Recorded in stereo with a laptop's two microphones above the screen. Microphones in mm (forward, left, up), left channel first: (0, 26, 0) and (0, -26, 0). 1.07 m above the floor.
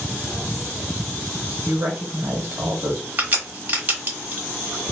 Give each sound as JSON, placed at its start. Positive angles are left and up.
{"t": 1.6, "sound": "a woman speaking", "side_deg": -55, "distance_m": 1.2}
{"t": 3.2, "sound": "a crack", "side_deg": -35, "distance_m": 1.0}